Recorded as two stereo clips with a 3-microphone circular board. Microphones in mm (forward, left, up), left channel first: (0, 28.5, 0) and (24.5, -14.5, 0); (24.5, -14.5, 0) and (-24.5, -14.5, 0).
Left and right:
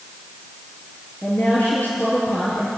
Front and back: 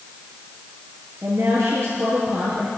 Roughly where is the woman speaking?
Behind.